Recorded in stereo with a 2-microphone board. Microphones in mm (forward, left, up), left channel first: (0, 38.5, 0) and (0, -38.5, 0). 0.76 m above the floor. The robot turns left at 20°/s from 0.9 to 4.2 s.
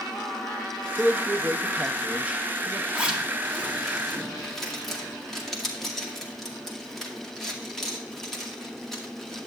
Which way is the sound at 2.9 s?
20° right (ahead or behind).